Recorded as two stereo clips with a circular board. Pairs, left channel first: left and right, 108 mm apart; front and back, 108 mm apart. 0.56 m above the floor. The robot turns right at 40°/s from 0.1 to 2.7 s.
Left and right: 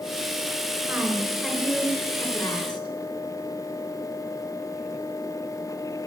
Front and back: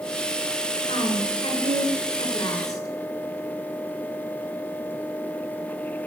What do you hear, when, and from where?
0.9 s a woman speaking: 25° right, 2.5 m; by 2.9 s 50° left, 2.5 m